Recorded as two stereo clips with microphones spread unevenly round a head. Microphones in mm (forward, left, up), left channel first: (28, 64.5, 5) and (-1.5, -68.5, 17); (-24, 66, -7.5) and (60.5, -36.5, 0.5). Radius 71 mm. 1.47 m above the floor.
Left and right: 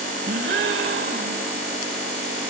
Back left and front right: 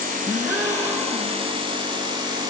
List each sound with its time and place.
0.3 s a gasp: 120° right, 2.5 m